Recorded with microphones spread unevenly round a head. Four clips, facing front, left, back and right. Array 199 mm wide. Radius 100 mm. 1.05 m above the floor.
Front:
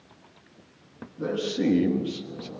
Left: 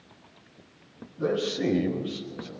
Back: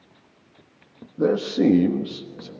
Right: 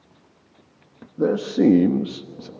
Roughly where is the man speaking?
Behind right.